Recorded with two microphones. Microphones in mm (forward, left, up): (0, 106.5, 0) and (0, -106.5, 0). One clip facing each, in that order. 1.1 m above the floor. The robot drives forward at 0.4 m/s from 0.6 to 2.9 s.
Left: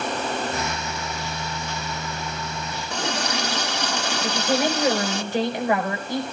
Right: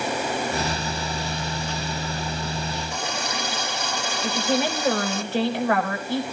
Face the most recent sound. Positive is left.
turn(degrees=15)  # may be behind; listen again after turning